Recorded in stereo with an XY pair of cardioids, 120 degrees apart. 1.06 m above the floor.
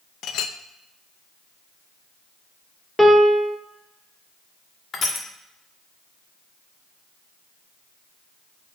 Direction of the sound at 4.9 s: 45° left.